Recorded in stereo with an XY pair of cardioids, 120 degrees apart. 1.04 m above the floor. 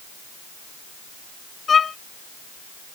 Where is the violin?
35° left.